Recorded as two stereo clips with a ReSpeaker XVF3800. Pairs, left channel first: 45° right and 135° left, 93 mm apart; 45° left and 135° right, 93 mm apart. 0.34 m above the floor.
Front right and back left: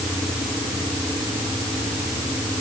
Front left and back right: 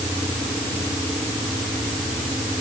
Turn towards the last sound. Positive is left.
No sound to turn to.